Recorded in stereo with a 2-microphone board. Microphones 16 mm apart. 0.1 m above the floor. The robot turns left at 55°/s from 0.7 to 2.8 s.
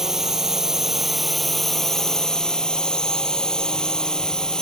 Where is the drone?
145° right; by 4.6 s 100° left.